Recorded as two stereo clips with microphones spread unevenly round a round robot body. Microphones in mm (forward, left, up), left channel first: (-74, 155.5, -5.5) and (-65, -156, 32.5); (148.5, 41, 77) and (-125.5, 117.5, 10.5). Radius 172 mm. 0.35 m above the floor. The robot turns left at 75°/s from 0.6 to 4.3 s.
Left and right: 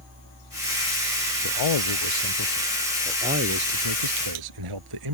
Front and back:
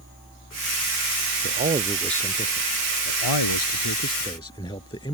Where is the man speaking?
120° left; by 5.2 s 95° right.